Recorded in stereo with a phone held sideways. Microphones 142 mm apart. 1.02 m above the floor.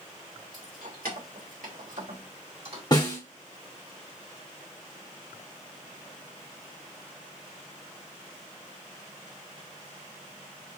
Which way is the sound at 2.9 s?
30° left (ahead or behind).